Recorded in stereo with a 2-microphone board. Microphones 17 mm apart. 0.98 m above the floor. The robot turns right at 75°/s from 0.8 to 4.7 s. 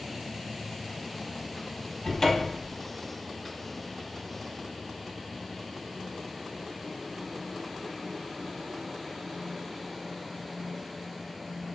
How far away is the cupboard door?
About 0.6 m.